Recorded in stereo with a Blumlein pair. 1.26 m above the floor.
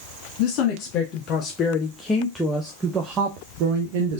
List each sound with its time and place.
0.4 s a woman speaking: 40° left, 1.6 m; by 4.2 s 55° right, 1.2 m